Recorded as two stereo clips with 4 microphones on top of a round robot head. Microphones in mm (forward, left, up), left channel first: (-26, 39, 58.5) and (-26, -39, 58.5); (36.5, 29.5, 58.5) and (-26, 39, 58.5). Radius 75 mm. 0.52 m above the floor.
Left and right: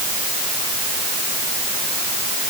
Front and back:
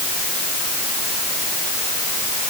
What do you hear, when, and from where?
Only background noise.